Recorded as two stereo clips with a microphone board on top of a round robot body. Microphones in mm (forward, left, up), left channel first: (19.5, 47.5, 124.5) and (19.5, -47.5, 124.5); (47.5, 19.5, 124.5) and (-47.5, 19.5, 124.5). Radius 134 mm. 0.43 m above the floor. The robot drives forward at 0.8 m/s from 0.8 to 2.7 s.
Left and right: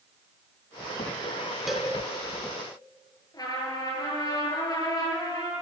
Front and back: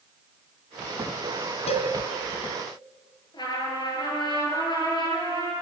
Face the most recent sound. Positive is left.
turn(degrees=40)